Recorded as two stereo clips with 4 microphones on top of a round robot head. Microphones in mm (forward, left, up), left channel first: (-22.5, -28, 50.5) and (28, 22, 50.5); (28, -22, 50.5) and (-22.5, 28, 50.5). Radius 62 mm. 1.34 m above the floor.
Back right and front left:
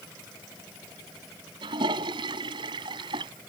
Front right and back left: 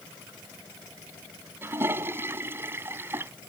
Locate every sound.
1.6 s a toilet flushing: 75° left